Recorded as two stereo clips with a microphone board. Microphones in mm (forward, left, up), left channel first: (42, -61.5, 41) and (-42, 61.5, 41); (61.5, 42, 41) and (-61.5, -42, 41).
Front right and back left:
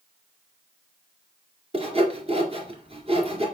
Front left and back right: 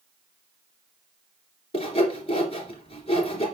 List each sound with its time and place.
1.7 s sawing: 80° left, 2.5 m